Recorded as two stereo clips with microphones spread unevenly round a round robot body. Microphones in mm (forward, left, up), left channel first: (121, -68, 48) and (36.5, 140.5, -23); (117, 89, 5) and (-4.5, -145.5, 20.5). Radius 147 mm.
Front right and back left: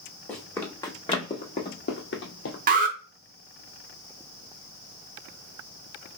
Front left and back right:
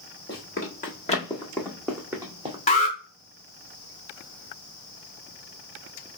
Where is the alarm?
120° left, 1.0 m.